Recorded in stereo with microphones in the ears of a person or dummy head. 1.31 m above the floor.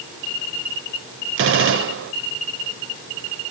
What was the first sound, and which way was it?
A gunshot, 55° right (ahead or behind).